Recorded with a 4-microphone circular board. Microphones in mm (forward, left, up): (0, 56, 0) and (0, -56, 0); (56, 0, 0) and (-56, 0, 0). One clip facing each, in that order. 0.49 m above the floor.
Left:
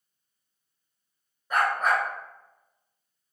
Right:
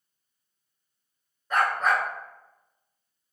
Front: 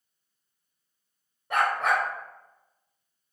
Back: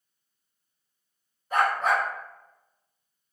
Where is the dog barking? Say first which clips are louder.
Even, back 1 dB; 5° left, 1.3 m.